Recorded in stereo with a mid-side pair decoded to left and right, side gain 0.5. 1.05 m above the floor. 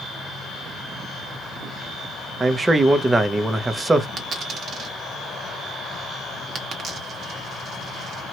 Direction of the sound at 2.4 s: 25° right.